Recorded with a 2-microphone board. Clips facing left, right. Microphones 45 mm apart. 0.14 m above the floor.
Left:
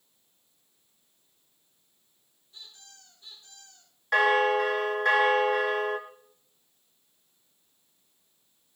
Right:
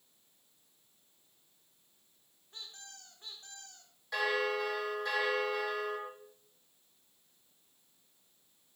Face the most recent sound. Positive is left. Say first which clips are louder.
# left 10 dB
turn(degrees=55)  # may be behind; listen again after turning